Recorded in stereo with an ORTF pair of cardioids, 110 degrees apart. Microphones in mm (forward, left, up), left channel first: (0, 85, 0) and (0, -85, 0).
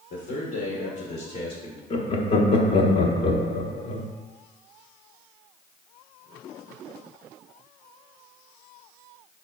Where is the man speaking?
70° left, 1.3 m; by 1.8 s 30° left, 1.1 m.